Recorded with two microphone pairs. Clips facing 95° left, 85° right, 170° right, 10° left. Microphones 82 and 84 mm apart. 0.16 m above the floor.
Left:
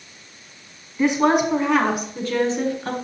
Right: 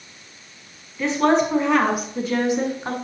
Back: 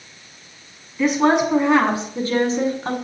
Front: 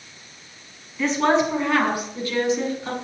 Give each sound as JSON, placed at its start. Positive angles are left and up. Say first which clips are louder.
{"t": 1.0, "sound": "a woman speaking", "louder": "left 1 dB, back 3 dB", "azimuth_deg": 115, "distance_m": 1.3}